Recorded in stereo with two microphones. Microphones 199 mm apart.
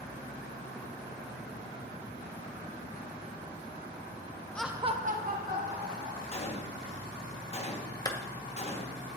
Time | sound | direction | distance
4.5 | laughter | 5° left (ahead or behind) | 0.5 m
6.3 | a gunshot | 30° left (ahead or behind) | 0.9 m
8.1 | a clap | 20° left (ahead or behind) | 0.8 m